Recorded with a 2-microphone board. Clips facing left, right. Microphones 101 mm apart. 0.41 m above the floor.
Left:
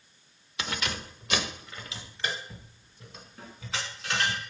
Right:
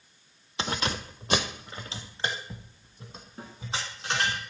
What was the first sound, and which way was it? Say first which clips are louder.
Keys jangling: right 3 dB; 30° right (ahead or behind).